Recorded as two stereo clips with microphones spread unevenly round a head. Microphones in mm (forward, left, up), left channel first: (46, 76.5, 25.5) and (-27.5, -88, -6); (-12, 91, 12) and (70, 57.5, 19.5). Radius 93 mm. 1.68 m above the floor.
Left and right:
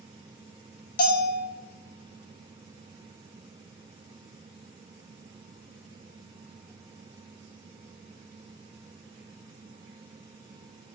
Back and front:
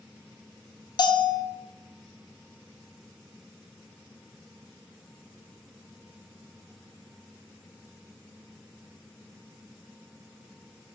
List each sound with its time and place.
1.0 s a bell: 115° left, 0.6 m